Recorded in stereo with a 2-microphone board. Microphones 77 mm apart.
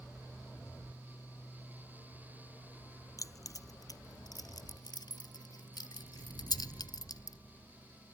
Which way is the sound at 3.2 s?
45° left (ahead or behind).